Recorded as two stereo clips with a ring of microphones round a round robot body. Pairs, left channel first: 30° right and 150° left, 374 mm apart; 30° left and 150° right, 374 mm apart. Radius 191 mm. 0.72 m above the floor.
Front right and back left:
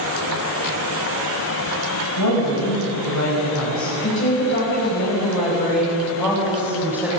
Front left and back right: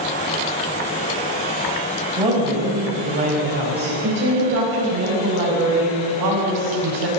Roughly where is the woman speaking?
Right.